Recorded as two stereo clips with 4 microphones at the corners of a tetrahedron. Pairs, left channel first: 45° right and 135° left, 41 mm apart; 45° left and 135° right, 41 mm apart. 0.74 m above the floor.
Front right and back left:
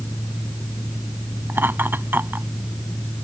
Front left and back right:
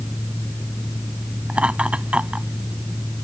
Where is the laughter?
165° left.